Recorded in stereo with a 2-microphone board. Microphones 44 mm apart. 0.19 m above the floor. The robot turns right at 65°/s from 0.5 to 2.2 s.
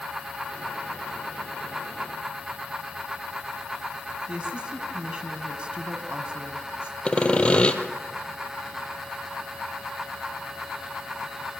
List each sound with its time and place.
4.3 s a woman speaking: 25° right (ahead or behind), 1.6 m
7.0 s sawing: 25° left (ahead or behind), 1.6 m